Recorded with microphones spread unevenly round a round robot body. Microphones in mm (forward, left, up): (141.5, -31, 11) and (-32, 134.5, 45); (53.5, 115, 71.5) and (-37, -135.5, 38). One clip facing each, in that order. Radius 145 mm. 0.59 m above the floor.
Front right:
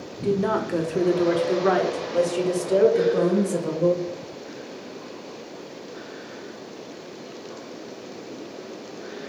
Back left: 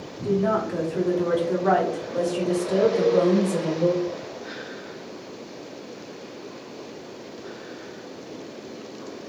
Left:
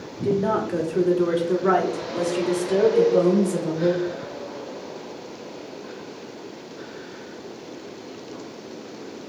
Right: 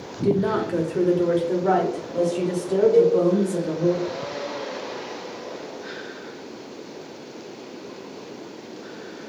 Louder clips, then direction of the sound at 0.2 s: Even, right 1 dB; 55° right.